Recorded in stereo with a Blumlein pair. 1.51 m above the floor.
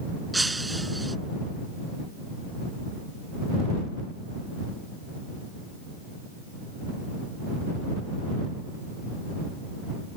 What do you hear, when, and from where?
0.3 s breaking glass: 5° right